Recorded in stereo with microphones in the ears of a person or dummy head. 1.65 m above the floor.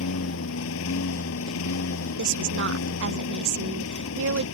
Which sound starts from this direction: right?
A woman speaking, at 2.2 s.